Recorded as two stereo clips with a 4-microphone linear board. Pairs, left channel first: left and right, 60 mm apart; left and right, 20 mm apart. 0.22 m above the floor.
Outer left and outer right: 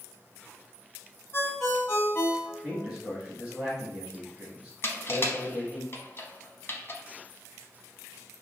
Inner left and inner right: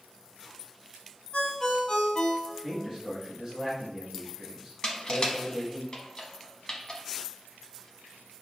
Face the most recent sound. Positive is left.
turn(degrees=45)  # may be behind; listen again after turning